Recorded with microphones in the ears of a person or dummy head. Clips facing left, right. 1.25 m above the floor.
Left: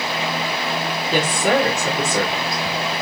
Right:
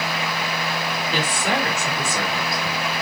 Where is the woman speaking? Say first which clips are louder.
Left 7 dB; 60° left (ahead or behind), 2.5 m.